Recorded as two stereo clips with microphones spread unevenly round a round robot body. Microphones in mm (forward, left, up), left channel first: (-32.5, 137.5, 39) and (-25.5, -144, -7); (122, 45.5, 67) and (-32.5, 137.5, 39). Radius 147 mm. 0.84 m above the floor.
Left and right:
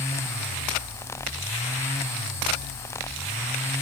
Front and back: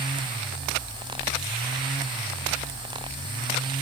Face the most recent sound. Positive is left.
No sound to turn to.